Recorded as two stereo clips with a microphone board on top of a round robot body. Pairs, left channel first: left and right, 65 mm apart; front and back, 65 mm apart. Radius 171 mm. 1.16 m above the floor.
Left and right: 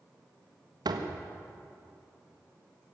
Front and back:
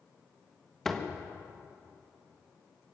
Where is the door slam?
85° right, 1.6 m.